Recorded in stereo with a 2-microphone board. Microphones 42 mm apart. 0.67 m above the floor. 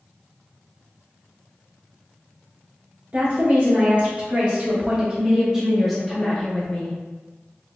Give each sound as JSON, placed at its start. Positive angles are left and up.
{"t": 3.1, "sound": "a woman speaking", "side_deg": -45, "distance_m": 1.9}